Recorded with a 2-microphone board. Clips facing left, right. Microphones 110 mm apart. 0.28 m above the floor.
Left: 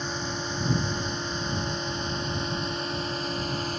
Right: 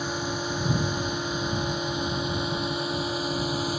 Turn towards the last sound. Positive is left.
turn(degrees=-10)  # may be behind; listen again after turning